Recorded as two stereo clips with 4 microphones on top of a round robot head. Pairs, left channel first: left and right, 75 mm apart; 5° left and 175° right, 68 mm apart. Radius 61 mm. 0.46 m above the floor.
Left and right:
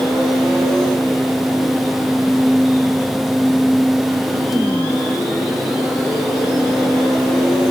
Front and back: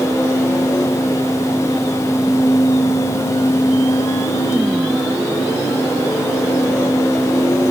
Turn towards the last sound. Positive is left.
No sound to turn to.